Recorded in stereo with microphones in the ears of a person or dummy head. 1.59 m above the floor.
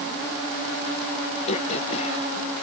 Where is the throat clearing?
35° left (ahead or behind).